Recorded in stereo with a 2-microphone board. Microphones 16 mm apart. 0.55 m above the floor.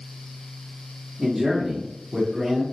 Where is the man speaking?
15° right (ahead or behind), 0.9 m; by 2.6 s 45° right (ahead or behind), 1.4 m.